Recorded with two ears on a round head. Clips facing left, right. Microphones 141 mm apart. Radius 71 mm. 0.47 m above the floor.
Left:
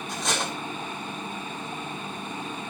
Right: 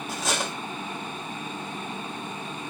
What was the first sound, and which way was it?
Cutlery clinking, 5° right (ahead or behind).